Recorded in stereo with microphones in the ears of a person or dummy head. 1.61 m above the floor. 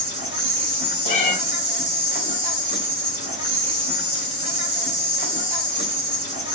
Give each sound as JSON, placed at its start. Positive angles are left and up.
{"t": 0.0, "sound": "an insect", "side_deg": -25, "distance_m": 2.5}
{"t": 1.1, "sound": "a cat meowing", "side_deg": 35, "distance_m": 1.6}